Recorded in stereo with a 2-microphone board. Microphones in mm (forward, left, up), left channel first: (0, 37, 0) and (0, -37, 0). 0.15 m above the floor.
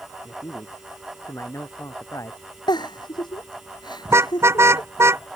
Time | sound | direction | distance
0.2 | a man speaking | 40° left (ahead or behind) | ?
2.7 | a giggle | 70° left (ahead or behind) | ?
4.0 | a car horn | 35° right (ahead or behind) | ?